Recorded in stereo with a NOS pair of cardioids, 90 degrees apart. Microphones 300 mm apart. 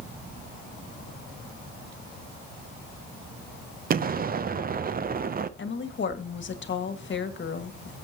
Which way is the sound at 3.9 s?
30° right.